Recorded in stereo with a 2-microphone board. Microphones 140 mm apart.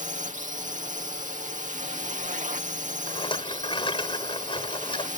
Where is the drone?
65° right (ahead or behind).